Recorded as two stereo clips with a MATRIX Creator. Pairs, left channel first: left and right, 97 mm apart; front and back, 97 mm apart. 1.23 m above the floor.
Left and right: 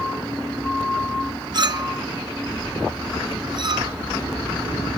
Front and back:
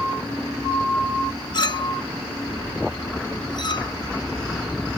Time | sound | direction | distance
1.5 | a clink | 45° right | ?